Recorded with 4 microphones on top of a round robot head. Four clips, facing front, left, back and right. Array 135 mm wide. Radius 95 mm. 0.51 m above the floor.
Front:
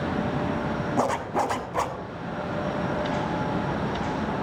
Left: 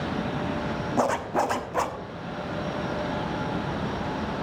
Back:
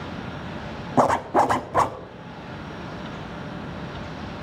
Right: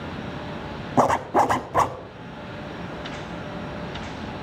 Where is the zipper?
145° right, 1.1 m.